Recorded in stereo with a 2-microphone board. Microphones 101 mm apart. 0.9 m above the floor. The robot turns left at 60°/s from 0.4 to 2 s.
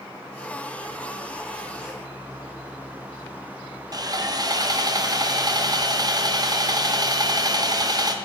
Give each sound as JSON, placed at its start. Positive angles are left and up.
{"t": 3.9, "sound": "sawing", "side_deg": -40, "distance_m": 0.5}